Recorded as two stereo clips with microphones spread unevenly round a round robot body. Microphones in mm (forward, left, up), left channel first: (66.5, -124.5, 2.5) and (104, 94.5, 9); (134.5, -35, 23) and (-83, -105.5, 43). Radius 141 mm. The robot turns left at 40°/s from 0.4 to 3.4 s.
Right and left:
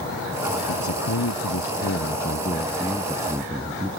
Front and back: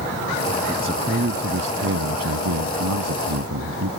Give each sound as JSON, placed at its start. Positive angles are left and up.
{"t": 0.7, "sound": "a man speaking", "azimuth_deg": -90}